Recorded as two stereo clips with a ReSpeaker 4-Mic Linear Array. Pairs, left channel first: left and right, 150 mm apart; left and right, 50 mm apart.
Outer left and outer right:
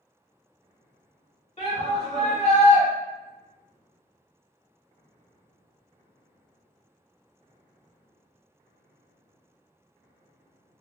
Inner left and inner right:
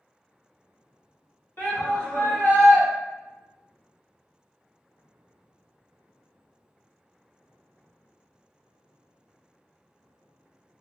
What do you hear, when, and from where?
1.6 s a shout: 45° left (ahead or behind), 1.6 m